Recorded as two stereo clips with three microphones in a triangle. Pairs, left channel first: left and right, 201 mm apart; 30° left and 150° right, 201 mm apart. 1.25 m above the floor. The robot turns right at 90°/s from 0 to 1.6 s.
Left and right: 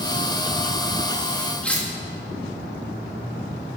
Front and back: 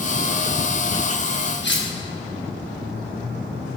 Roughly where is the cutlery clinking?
Ahead.